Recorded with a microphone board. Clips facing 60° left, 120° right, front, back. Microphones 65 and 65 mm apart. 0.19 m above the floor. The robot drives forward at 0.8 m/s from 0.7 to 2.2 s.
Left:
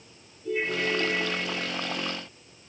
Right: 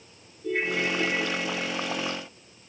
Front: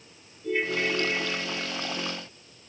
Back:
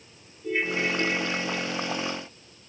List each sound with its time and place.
0.4 s a ringtone: 105° right, 2.5 m; by 2.1 s 130° right, 3 m